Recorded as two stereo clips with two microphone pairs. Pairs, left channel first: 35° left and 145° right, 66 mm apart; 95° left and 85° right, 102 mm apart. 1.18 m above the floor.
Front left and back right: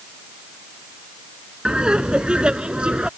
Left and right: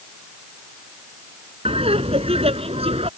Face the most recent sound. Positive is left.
turn(degrees=-70)